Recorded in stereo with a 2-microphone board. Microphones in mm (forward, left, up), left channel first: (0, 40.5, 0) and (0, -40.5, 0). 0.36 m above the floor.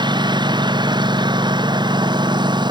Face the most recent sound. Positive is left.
turn(degrees=-65)  # may be behind; listen again after turning